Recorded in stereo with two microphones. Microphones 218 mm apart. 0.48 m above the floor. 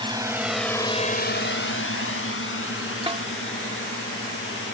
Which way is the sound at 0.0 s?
20° right (ahead or behind).